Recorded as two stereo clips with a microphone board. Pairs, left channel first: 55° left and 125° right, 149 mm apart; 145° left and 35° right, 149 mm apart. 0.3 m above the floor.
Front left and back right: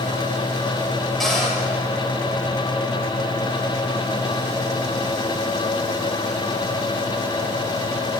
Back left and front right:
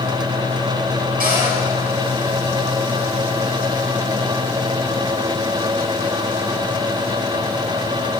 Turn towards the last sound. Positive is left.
turn(degrees=-35)